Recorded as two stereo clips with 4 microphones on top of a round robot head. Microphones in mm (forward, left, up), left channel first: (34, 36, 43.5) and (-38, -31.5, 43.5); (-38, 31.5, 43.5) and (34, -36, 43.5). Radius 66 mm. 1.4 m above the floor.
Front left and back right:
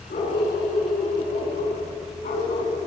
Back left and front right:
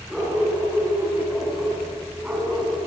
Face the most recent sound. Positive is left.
turn(degrees=40)